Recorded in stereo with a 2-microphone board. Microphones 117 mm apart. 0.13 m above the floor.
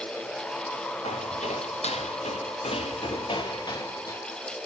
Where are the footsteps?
85° left, 2 m; by 4.2 s 25° left (ahead or behind), 1.2 m.